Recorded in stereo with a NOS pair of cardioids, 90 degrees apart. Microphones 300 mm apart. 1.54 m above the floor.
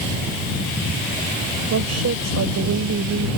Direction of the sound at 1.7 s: 60° right.